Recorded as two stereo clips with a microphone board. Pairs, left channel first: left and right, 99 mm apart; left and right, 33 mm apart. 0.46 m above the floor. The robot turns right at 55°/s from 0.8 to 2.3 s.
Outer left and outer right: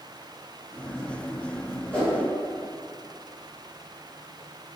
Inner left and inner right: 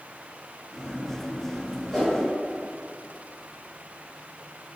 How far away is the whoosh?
About 0.8 m.